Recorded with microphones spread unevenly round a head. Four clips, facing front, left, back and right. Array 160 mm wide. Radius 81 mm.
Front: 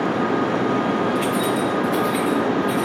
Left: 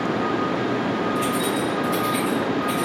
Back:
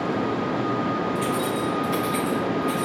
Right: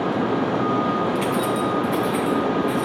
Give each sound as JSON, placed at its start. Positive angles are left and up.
{"t": 1.1, "sound": "keys jangling", "azimuth_deg": -85, "distance_m": 1.0}